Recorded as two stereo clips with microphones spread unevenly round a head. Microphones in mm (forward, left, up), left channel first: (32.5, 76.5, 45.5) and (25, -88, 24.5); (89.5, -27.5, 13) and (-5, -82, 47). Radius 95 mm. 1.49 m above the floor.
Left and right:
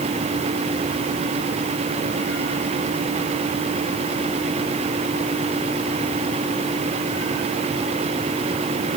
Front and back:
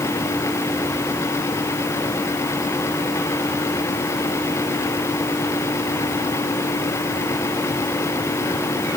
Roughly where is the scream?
No scream in this recording.